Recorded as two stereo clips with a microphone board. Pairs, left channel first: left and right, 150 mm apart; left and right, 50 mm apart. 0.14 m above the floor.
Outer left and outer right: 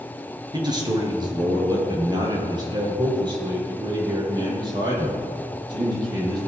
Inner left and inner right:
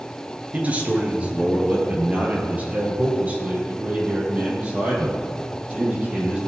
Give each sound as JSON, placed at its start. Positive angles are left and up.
{"t": 0.5, "sound": "a man speaking", "side_deg": -30, "distance_m": 2.5}